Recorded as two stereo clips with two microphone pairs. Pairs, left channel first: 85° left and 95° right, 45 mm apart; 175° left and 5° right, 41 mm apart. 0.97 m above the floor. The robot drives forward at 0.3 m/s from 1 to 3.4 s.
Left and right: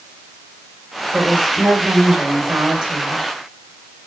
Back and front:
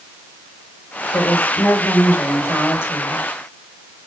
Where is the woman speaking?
155° right, 3.5 m; by 3.2 s 160° right, 4 m.